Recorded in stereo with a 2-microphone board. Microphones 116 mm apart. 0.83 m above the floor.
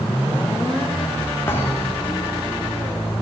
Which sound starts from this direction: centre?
A thud, at 1.5 s.